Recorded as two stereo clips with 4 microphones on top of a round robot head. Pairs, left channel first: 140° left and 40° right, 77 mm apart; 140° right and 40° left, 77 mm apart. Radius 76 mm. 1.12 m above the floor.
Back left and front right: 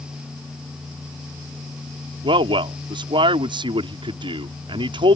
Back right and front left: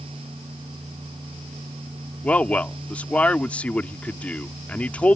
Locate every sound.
2.2 s a man speaking: 65° right